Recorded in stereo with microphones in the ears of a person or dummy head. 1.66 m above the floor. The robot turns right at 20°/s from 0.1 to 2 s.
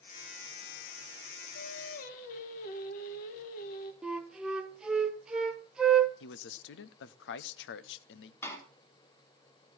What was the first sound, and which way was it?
Singing, 55° left (ahead or behind).